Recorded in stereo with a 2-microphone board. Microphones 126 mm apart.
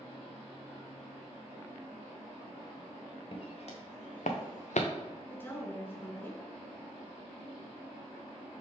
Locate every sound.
3.3 s footsteps: 50° left (ahead or behind), 1.9 m; by 4.9 s 65° left (ahead or behind), 1.2 m
5.3 s a woman speaking: 15° left (ahead or behind), 1.4 m